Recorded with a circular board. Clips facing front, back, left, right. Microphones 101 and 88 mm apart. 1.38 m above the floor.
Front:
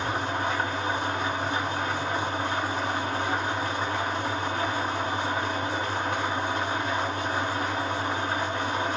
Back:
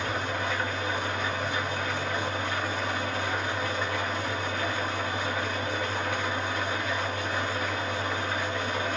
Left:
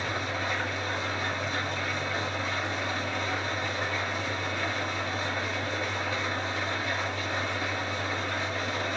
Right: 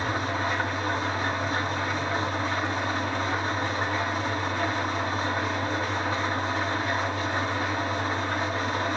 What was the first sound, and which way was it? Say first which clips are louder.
An engine running: front 2 dB, right 4 dB; 50° right.